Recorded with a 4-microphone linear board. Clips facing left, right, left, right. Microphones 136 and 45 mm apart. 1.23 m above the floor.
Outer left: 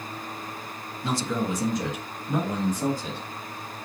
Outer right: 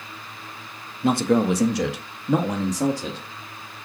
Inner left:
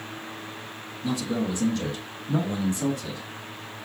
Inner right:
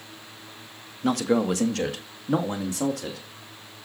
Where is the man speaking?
55° right (ahead or behind), 1.0 m; by 3.2 s 85° right, 2.5 m.